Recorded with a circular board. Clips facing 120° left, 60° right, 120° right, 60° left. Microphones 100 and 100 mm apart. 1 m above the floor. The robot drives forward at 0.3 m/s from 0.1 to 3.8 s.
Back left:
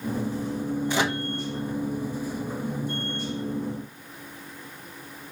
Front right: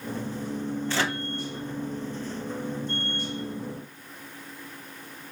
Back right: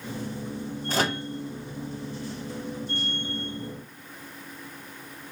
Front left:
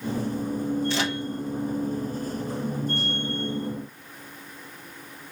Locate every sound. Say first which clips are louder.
0.9 s a microwave: back left 2 dB, even; 165° right, 0.6 m